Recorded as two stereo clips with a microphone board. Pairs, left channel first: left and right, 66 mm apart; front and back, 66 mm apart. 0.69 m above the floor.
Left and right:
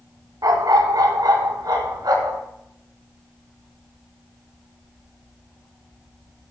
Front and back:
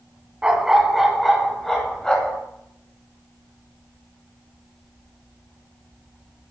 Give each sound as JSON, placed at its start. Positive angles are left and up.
{"t": 0.4, "sound": "a dog barking", "azimuth_deg": -105, "distance_m": 1.6}